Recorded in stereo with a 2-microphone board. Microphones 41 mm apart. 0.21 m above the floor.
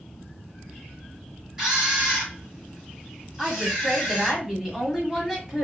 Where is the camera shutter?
15° right (ahead or behind), 1.8 m.